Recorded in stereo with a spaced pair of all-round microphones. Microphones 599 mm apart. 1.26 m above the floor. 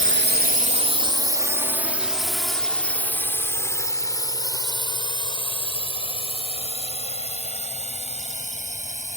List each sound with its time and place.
0.0 s a drone: 20° right (ahead or behind); by 9.2 s 10° left (ahead or behind)